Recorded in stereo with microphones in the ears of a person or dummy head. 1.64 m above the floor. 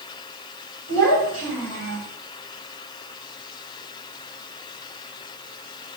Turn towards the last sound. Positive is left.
turn(degrees=-65)  # may be behind; listen again after turning